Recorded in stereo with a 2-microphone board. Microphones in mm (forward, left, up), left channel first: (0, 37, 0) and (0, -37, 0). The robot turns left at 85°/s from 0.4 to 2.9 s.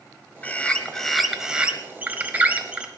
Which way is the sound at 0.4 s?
20° left (ahead or behind).